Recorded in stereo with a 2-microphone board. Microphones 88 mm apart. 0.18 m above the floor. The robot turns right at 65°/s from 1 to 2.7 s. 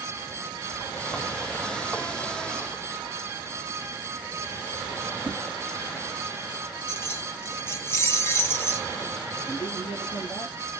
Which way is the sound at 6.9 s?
30° left (ahead or behind).